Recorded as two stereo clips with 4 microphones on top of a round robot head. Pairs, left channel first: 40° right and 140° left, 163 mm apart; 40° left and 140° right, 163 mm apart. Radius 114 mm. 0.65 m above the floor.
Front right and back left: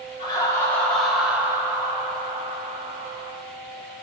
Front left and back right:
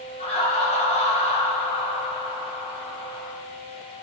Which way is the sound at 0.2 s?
10° left.